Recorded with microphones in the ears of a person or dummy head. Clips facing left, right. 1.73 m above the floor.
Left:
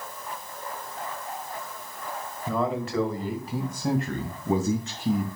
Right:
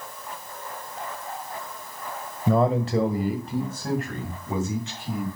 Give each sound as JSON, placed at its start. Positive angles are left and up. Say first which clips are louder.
{"t": 2.5, "sound": "a man speaking", "louder": "right 6 dB", "side_deg": -40, "distance_m": 1.5}